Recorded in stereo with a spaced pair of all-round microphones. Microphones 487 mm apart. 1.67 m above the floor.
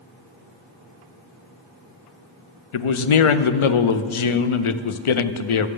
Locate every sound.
2.7 s a man speaking: 80° left, 0.5 m